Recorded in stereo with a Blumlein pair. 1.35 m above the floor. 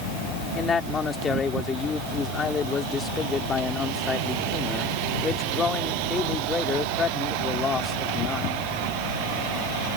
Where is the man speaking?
15° left.